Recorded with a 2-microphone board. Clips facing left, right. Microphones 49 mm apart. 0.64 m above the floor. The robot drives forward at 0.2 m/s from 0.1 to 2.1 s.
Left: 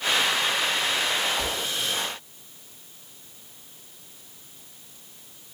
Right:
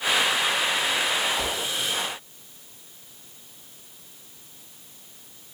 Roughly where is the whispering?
Centre.